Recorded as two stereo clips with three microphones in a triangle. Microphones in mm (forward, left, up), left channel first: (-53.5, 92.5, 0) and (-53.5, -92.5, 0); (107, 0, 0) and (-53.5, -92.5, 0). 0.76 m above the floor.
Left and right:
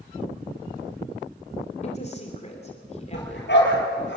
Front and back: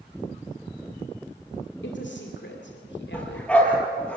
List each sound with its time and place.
1.8 s a woman speaking: 40° left, 3 m
3.1 s a dog barking: 115° left, 5.5 m